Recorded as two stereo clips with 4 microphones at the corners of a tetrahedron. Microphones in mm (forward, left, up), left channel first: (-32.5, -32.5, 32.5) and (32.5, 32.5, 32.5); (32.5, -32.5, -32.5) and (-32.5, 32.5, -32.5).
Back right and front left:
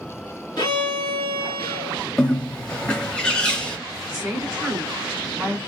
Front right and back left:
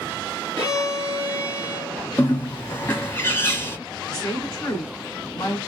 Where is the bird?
65° right, 0.9 m.